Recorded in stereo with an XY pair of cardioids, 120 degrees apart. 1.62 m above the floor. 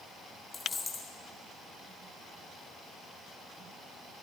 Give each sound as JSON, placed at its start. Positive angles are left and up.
{"t": 0.5, "sound": "a dropped coin", "azimuth_deg": 35, "distance_m": 3.0}